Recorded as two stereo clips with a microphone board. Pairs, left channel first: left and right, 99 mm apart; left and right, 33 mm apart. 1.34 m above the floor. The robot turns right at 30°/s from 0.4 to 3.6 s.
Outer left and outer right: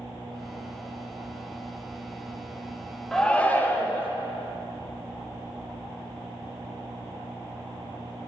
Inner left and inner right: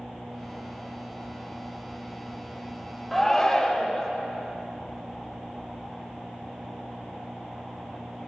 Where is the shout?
5° left (ahead or behind), 0.9 m; by 4.1 s 20° left (ahead or behind), 0.9 m.